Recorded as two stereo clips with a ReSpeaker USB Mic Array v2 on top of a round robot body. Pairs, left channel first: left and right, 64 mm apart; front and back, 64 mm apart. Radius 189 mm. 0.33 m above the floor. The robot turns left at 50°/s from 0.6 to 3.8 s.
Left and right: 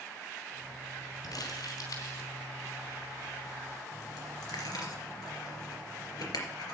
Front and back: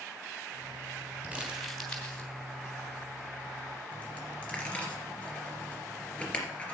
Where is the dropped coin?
70° left, 3 m.